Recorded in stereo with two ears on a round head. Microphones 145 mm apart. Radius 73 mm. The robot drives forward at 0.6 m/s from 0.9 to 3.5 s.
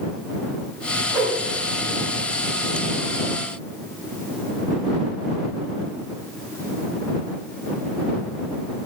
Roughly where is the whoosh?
Centre.